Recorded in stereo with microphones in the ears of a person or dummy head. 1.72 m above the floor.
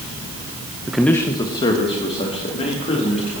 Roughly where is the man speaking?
Centre.